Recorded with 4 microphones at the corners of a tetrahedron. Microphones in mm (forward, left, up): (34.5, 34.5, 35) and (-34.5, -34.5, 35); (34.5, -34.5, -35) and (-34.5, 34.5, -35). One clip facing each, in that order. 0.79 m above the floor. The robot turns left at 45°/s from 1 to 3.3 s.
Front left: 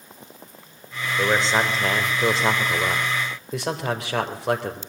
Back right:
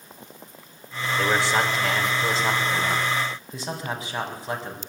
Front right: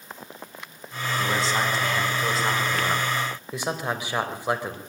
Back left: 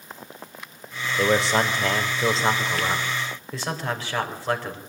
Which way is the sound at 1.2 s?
125° left.